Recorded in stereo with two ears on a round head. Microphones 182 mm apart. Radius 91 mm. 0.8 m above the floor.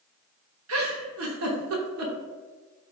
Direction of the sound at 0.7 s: 80° right.